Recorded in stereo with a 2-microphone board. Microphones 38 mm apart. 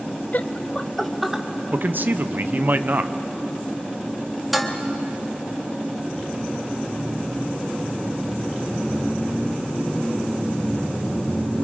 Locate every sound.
0.3 s laughter: 50° left (ahead or behind), 0.7 m; by 1.4 s 10° right (ahead or behind), 1.5 m
1.7 s a man speaking: 55° right (ahead or behind), 0.7 m
4.5 s dishes clattering: 5° right (ahead or behind), 1.3 m